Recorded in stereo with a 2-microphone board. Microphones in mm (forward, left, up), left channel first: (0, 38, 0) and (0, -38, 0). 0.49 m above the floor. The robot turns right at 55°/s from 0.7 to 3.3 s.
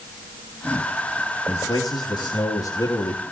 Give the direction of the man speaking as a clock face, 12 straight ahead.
10 o'clock.